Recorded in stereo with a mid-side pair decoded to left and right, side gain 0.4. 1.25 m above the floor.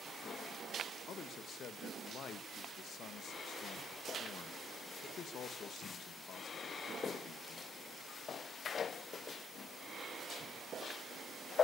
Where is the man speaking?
70° left, 1.6 m.